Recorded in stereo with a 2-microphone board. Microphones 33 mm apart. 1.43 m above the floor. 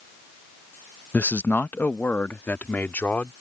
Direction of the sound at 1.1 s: 55° left (ahead or behind).